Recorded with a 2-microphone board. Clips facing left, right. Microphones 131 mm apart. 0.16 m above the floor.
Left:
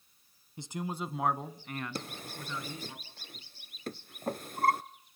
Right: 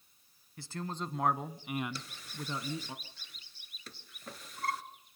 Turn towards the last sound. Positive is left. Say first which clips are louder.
# left 4 dB
turn(degrees=50)  # may be behind; listen again after turning